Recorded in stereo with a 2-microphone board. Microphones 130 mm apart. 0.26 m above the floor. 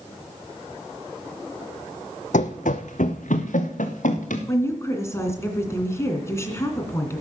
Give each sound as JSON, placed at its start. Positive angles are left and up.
{"t": 2.3, "sound": "running footsteps", "side_deg": 75, "distance_m": 0.8}
{"t": 4.5, "sound": "a woman speaking", "side_deg": 20, "distance_m": 2.5}